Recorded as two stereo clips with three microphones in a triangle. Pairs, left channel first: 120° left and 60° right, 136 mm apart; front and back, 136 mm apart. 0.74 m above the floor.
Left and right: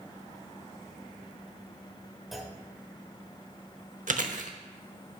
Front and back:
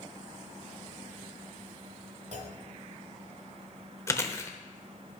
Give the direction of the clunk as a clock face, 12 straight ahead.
5 o'clock.